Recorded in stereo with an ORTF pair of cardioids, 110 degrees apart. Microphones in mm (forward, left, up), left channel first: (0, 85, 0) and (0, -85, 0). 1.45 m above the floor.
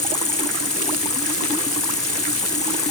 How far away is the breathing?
No breathing in this recording.